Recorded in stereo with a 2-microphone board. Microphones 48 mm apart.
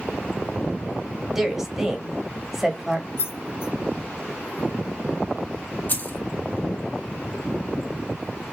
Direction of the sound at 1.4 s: 10° right (ahead or behind).